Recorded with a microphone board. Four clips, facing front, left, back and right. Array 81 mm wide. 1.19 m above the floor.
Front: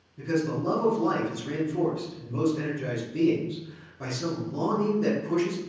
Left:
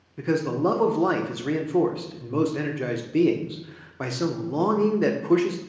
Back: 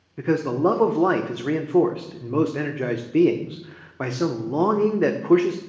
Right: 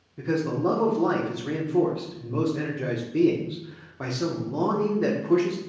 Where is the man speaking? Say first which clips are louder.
Left 2 dB, back 6 dB; 165° left, 0.5 m.